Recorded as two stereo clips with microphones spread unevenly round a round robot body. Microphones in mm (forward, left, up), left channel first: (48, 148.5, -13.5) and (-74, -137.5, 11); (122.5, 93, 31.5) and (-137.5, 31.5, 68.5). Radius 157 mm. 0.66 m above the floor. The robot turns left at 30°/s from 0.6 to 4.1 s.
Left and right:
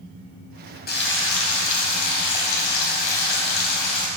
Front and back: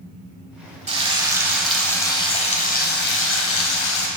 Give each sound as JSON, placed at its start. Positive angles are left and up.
{"t": 0.9, "sound": "frying", "azimuth_deg": 125, "distance_m": 4.0}